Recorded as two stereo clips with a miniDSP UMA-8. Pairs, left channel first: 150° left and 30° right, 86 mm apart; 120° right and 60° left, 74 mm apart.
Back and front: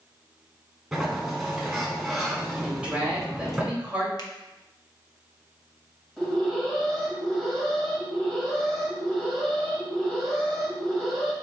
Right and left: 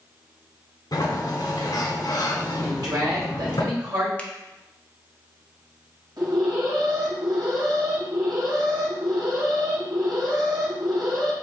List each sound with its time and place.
0.9 s a sliding door: 120° right, 1.1 m
2.6 s a woman speaking: 45° left, 2 m
4.2 s a finger snap: 170° left, 0.7 m
6.2 s an alarm: 65° left, 2 m